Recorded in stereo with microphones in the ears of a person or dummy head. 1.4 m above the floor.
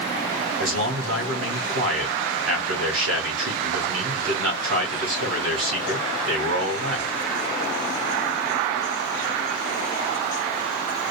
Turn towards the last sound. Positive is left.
turn(degrees=-75)  # may be behind; listen again after turning